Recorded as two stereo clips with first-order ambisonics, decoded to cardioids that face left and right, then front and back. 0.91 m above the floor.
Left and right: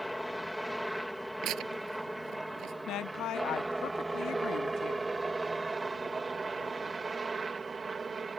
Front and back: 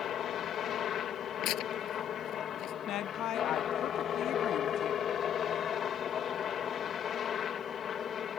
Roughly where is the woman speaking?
Ahead left.